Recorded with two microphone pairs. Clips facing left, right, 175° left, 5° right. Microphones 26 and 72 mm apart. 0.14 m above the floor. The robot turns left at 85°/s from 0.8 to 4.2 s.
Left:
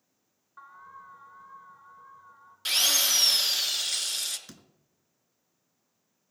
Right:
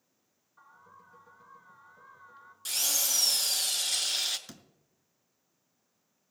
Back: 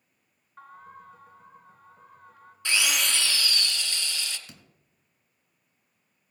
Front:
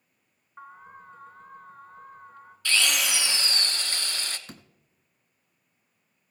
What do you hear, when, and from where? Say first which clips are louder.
0.6 s an alarm: left 9 dB, front 1 dB; 70° left, 1.2 m; by 2.5 s 80° right, 1.2 m
2.6 s a drill: left 7 dB, front 1 dB; 115° left, 0.9 m; by 4.4 s 20° right, 0.9 m
4.5 s a door slam: even, front 6 dB; straight ahead, 0.9 m